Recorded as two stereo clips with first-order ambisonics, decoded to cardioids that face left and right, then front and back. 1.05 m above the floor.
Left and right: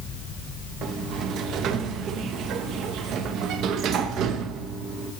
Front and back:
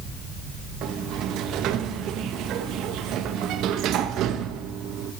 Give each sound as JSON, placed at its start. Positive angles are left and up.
{"t": 0.8, "sound": "a sliding door", "azimuth_deg": -135, "distance_m": 0.6}